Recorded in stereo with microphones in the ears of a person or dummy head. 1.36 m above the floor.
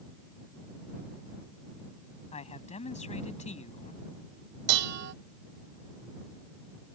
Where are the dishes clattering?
70° right (ahead or behind).